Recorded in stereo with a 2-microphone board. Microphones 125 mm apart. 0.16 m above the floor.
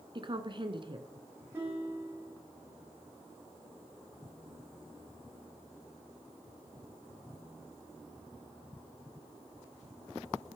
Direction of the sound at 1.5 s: 15° right (ahead or behind).